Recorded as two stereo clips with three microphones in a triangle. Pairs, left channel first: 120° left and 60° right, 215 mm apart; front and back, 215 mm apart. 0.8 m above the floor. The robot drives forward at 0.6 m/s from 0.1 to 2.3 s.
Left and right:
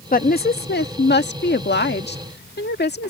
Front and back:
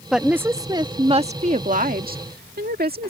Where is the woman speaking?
95° left; by 3.1 s 145° left.